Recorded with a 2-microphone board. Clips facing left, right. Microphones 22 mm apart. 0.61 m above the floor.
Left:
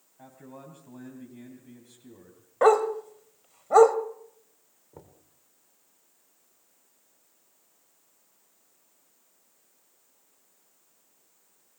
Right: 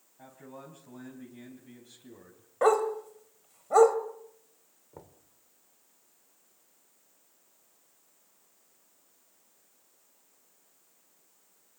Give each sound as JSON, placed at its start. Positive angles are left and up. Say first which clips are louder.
{"t": 0.2, "sound": "a man speaking", "louder": "left 1 dB", "side_deg": 5, "distance_m": 4.0}
{"t": 2.6, "sound": "a dog barking", "louder": "left 4 dB", "side_deg": 15, "distance_m": 1.2}
{"t": 4.9, "sound": "knocking", "louder": "even", "side_deg": -10, "distance_m": 2.0}